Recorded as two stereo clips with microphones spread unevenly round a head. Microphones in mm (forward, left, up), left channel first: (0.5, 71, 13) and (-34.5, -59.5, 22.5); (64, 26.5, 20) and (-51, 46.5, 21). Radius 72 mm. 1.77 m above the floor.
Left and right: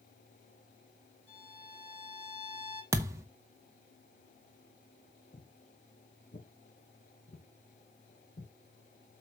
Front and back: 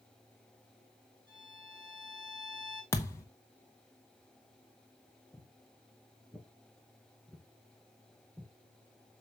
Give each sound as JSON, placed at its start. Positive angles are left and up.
{"t": 1.3, "sound": "a violin", "azimuth_deg": 120, "distance_m": 4.5}
{"t": 2.9, "sound": "a thud", "azimuth_deg": -65, "distance_m": 1.1}
{"t": 5.3, "sound": "footsteps", "azimuth_deg": 85, "distance_m": 2.0}